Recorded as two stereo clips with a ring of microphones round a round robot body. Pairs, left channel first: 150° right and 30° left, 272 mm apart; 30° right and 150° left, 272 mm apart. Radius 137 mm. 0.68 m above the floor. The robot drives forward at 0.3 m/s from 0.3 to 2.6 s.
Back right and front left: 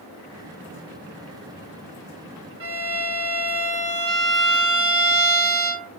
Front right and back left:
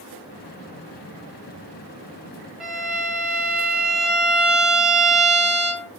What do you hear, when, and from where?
2.6 s a violin: 65° left, 1.6 m